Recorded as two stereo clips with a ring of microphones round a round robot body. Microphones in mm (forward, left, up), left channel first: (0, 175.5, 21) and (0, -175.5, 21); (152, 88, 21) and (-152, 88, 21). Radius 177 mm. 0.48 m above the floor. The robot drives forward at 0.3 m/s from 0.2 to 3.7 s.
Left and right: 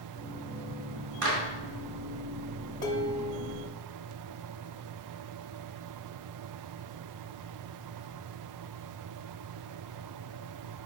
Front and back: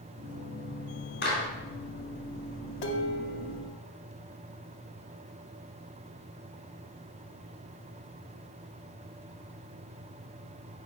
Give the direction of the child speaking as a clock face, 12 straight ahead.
No child speaking in this recording.